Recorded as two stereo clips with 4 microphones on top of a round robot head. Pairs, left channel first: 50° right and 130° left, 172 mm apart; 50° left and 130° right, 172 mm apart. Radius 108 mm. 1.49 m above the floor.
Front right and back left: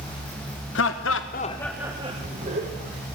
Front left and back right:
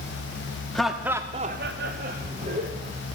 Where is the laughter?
35° right, 0.9 m; by 3.0 s 175° left, 1.6 m.